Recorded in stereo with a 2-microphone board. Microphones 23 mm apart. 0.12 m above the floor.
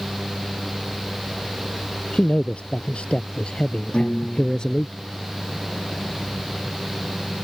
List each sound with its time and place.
2.1 s a man speaking: 65° left (ahead or behind); by 4.9 s 35° left (ahead or behind)
3.9 s a piano: 55° left (ahead or behind)